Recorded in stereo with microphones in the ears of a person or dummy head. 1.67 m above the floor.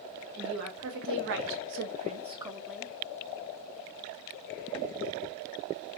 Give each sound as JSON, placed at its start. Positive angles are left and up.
{"t": 0.4, "sound": "a woman speaking", "side_deg": -75, "distance_m": 1.2}